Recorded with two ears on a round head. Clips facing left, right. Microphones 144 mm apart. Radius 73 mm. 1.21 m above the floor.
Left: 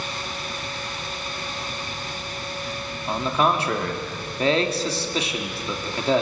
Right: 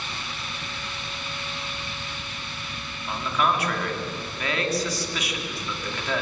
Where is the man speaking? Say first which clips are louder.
Left 3 dB; 25° left (ahead or behind), 3.5 m.